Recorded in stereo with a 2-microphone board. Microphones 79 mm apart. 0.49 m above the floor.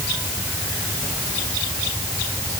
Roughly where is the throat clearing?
No throat clearing in this recording.